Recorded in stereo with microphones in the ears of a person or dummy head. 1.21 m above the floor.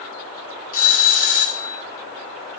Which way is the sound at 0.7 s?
40° left (ahead or behind).